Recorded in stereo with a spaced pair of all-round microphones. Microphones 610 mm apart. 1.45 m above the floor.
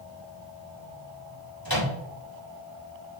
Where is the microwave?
40° right (ahead or behind), 3 m.